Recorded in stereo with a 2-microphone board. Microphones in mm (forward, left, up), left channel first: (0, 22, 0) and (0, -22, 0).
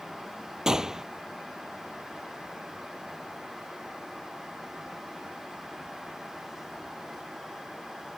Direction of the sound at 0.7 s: 15° right (ahead or behind).